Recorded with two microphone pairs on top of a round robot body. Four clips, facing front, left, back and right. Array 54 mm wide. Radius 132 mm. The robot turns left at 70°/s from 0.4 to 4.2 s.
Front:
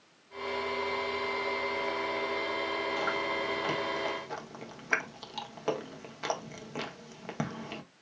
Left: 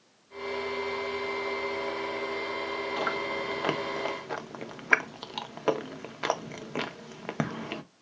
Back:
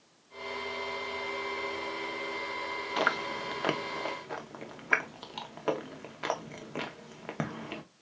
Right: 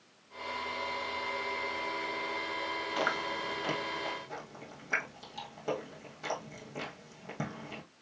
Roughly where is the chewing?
Behind.